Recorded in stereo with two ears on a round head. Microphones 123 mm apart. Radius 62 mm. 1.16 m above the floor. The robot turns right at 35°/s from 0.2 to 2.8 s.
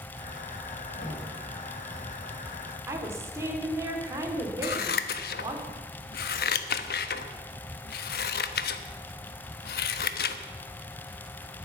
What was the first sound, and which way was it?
Knocking, 90° left.